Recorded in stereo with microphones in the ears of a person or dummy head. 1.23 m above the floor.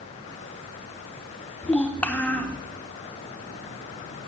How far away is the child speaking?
About 0.7 m.